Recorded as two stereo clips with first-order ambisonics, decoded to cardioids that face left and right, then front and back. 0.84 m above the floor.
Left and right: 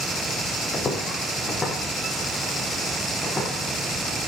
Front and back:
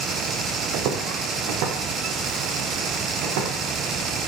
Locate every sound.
0.7 s footsteps: 160° left, 2.5 m; by 3.5 s 170° left, 5.5 m